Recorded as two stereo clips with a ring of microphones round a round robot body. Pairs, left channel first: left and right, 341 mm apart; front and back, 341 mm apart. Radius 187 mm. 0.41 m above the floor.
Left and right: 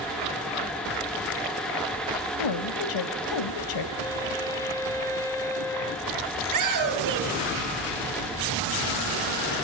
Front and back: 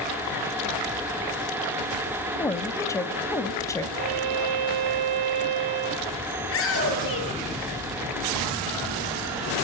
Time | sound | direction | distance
2.4 | a woman speaking | 80° left | 2 m
4.0 | a violin | 170° left | 1.5 m
6.4 | a shout | 60° right | 8.5 m